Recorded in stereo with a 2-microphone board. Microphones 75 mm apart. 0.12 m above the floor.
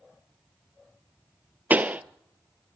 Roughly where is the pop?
Right.